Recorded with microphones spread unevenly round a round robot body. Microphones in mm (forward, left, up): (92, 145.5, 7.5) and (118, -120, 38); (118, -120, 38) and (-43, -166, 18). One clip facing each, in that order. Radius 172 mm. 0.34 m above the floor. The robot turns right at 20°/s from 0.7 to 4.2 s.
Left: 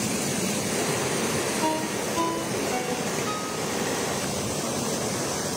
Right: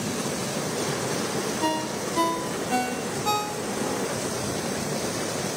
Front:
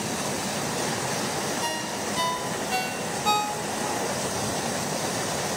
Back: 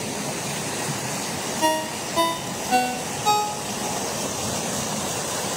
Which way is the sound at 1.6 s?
160° right.